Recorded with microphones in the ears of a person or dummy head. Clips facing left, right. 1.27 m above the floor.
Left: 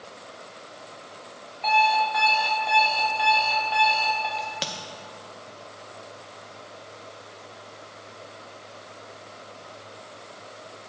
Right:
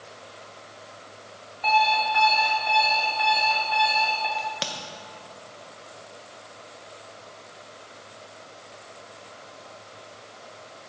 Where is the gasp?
No gasp in this recording.